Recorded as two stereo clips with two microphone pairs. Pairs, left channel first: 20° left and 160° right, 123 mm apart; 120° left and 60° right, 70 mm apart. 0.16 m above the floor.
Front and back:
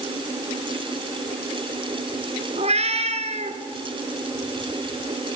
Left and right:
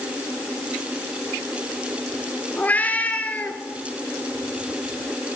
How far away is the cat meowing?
About 1.5 m.